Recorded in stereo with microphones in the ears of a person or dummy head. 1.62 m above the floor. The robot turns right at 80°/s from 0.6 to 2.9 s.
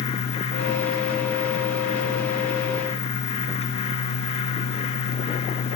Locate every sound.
Only background noise.